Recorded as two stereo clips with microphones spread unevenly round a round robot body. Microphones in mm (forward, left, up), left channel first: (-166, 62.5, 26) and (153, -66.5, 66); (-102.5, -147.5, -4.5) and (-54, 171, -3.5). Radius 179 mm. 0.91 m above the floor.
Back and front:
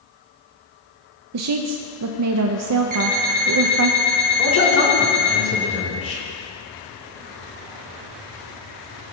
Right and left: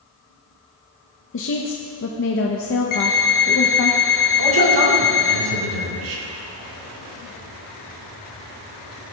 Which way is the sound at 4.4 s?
105° left.